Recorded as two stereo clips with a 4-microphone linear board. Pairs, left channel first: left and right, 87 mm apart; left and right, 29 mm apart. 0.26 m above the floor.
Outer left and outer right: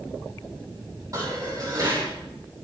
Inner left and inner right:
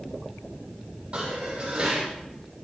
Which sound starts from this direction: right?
Dishes clattering, at 1.1 s.